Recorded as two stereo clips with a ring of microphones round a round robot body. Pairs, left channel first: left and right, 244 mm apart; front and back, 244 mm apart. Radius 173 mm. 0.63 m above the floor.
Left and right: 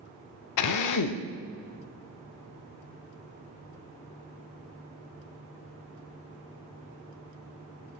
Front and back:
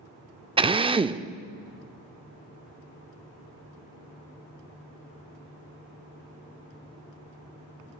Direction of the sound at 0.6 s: 105° left.